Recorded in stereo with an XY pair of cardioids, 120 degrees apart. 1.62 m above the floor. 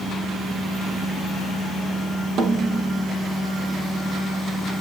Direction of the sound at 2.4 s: 65° right.